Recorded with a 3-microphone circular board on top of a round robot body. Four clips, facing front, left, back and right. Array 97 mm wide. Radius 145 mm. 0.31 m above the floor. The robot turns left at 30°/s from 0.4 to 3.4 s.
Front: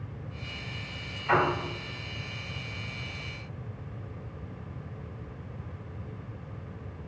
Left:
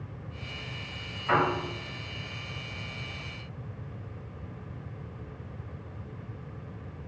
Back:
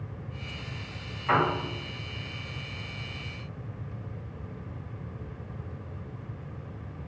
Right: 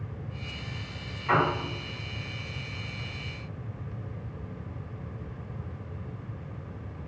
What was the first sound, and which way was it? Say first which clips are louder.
A piano: right 1 dB, even; 175° left.